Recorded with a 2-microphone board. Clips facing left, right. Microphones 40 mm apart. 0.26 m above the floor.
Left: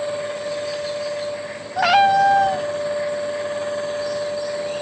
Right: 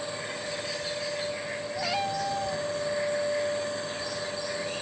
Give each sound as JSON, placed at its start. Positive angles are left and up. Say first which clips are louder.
{"t": 1.8, "sound": "a cat meowing", "louder": "left 17 dB", "side_deg": 70}